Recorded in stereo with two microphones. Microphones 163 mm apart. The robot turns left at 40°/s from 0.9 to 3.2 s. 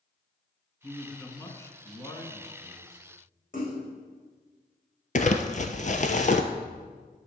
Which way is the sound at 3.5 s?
55° left (ahead or behind).